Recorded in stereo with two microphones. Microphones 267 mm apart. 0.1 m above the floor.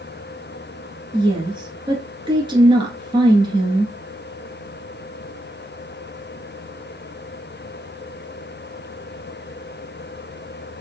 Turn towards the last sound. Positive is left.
turn(degrees=-15)  # may be behind; listen again after turning